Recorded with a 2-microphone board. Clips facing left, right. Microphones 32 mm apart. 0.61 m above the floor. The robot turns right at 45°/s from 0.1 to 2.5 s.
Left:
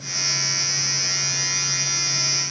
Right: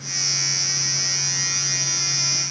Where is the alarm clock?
I don't hear an alarm clock.